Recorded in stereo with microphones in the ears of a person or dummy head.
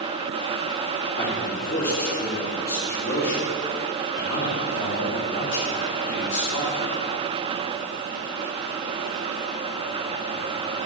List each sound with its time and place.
1.2 s a man speaking: 40° left (ahead or behind), 3.5 m; by 6.8 s 85° left, 5.5 m